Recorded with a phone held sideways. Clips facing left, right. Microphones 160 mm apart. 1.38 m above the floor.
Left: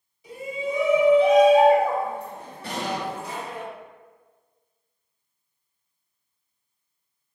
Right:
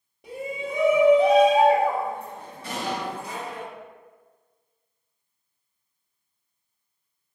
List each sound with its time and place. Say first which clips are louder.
0.2 s a shout: left 2 dB; 65° right (ahead or behind), 1.2 m; by 3.6 s 70° left (ahead or behind), 1.5 m
2.6 s an explosion: left 1 dB; 65° left (ahead or behind), 1.9 m